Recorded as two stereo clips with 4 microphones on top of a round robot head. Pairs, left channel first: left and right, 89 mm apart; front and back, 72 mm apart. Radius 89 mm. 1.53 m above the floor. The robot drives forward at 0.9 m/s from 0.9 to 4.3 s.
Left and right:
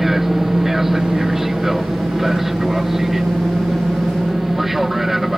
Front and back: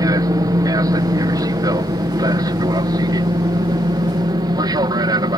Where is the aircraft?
175° right.